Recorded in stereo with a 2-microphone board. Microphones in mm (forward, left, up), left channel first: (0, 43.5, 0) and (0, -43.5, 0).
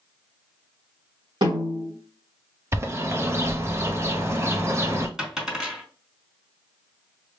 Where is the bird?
30° right (ahead or behind), 0.6 m.